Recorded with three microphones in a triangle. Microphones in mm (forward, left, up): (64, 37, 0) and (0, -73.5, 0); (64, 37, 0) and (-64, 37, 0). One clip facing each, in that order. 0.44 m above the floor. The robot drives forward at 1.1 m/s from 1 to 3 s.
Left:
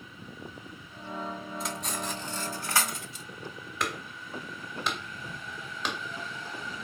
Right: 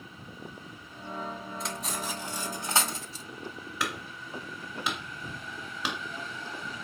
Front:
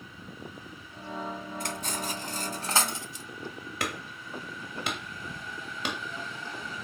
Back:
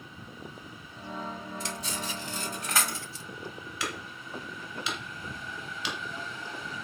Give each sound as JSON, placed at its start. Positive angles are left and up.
{"t": 1.6, "sound": "cutlery clinking", "azimuth_deg": -30, "distance_m": 2.5}
{"t": 3.8, "sound": "hammering", "azimuth_deg": -35, "distance_m": 2.0}